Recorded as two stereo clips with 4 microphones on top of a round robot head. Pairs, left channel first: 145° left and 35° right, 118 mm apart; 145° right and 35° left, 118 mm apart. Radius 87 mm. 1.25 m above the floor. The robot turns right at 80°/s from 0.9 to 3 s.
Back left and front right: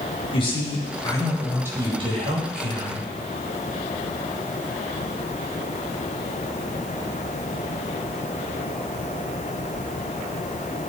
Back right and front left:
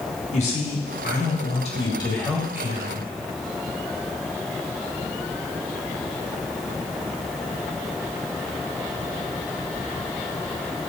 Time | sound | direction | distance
0.3 | a man speaking | 170° right | 3.5 m